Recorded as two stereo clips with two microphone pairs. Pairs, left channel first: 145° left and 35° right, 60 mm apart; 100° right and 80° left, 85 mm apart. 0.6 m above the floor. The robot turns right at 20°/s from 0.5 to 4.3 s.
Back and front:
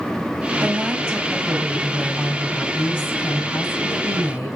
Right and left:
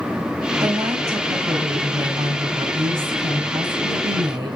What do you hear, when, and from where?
0.6 s a woman speaking: 30° left, 4 m; by 4.6 s 105° left, 4 m